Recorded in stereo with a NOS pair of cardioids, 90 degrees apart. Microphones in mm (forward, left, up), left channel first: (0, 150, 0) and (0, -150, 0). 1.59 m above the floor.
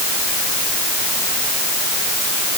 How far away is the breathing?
I don't hear breathing.